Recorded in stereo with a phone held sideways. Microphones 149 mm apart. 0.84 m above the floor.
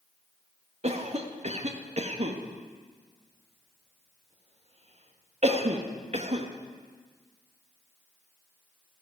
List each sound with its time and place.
0.8 s a cough: 45° right (ahead or behind), 1.3 m